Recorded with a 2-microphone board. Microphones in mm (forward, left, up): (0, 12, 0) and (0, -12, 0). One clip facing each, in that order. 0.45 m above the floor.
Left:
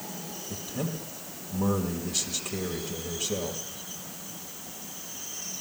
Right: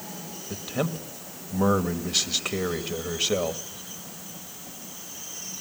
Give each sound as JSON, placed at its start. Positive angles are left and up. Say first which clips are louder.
{"t": 0.5, "sound": "a man speaking", "louder": "right 6 dB", "side_deg": -55, "distance_m": 1.9}